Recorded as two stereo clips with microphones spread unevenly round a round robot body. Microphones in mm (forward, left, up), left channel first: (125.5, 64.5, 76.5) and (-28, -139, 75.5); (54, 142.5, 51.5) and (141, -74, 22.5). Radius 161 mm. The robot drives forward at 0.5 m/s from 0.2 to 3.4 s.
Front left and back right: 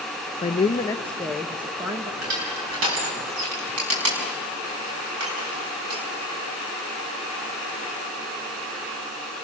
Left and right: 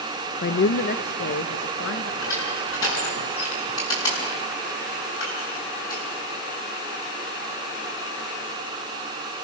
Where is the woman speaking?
95° left, 0.7 m; by 2.1 s 155° left, 1.1 m.